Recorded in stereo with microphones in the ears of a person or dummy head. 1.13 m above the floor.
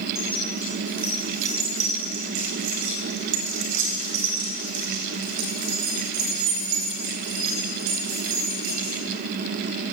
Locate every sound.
0.1 s keys jangling: centre (ahead or behind), 1.4 m; by 8.9 s 80° right, 5 m